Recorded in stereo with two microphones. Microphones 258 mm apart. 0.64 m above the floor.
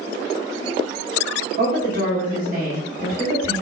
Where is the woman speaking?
35° right (ahead or behind), 1.3 m.